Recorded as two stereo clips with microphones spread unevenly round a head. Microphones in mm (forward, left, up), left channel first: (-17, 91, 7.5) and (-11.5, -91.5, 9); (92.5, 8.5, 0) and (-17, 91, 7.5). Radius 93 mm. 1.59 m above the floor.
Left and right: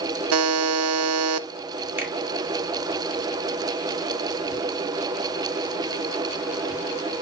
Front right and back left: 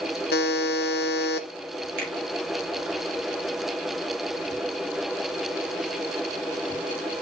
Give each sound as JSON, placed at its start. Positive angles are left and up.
{"t": 0.3, "sound": "a buzzer", "azimuth_deg": -80, "distance_m": 0.7}
{"t": 2.0, "sound": "a finger snap", "azimuth_deg": -165, "distance_m": 2.5}